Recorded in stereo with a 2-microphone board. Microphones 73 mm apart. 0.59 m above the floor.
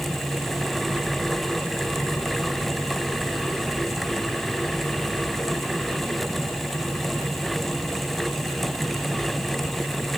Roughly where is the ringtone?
I don't hear a ringtone.